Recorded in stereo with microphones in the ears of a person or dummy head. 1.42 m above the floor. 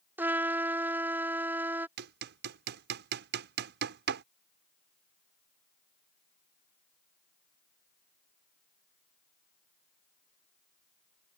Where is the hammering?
55° right (ahead or behind).